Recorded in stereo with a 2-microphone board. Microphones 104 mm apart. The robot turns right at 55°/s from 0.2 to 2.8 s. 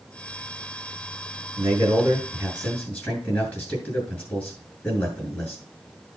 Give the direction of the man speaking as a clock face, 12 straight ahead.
2 o'clock.